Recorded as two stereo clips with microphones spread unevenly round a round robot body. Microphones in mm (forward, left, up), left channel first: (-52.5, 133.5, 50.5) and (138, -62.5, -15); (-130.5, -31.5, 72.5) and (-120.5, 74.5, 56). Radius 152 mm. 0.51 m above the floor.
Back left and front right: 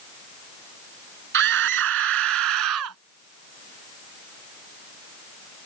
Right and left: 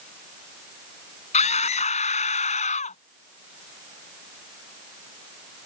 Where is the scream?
100° right; by 3.0 s 85° right.